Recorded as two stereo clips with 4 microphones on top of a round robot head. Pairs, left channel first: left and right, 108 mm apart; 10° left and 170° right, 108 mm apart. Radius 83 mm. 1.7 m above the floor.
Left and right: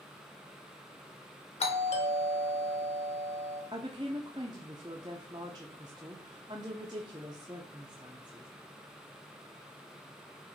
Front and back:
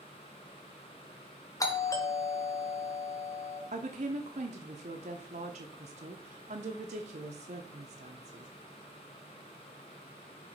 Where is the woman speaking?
150° right, 0.7 m.